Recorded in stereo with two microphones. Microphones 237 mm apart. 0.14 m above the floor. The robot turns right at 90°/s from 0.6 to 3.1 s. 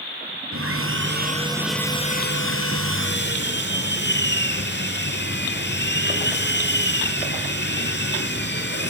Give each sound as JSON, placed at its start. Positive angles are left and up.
{"t": 0.5, "sound": "sawing", "azimuth_deg": -100, "distance_m": 2.0}